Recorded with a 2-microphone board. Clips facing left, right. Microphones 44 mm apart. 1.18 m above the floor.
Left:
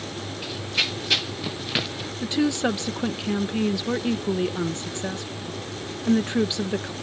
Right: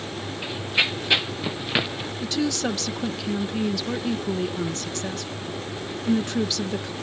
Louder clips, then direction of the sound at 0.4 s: Right 3 dB; 20° right (ahead or behind).